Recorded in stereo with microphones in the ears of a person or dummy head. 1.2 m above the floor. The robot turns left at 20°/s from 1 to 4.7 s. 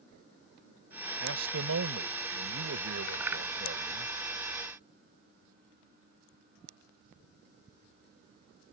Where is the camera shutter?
No camera shutter in this recording.